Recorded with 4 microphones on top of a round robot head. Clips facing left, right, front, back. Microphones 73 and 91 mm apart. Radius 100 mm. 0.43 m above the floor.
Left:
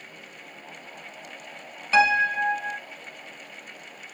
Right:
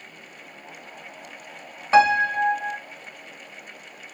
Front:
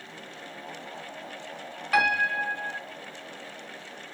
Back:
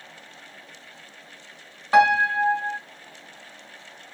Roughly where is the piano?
Behind right.